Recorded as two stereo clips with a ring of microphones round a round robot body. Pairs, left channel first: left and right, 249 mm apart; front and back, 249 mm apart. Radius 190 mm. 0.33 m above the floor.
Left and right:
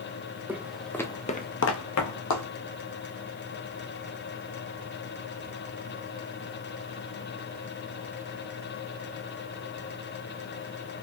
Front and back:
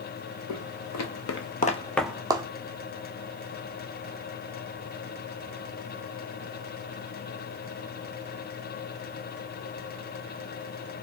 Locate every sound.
0.5 s footsteps: 10° right, 1.0 m; by 2.5 s 110° left, 0.8 m